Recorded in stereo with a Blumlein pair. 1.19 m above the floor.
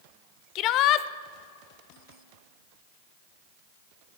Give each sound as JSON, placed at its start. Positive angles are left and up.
{"t": 0.6, "sound": "a shout", "azimuth_deg": 35, "distance_m": 0.7}